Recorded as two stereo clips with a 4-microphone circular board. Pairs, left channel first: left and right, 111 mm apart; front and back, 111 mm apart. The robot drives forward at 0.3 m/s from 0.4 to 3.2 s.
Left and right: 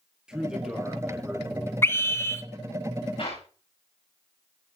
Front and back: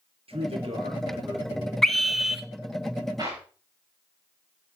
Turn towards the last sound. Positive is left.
turn(degrees=125)